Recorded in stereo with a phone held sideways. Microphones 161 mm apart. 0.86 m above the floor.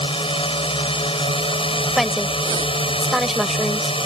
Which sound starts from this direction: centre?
A woman speaking, at 2.0 s.